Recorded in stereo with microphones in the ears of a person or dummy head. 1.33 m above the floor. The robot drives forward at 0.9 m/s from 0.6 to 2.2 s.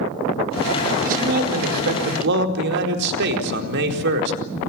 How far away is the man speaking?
About 4.5 m.